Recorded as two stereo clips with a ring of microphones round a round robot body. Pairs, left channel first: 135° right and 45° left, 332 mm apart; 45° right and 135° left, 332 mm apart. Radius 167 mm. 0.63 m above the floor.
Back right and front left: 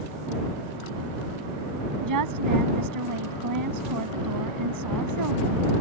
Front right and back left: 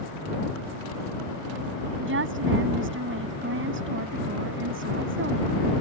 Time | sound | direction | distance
2.0 | a woman speaking | 80° left | ?